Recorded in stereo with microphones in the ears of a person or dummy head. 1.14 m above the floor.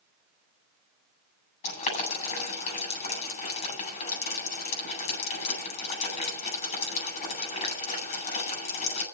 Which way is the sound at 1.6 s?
35° left (ahead or behind).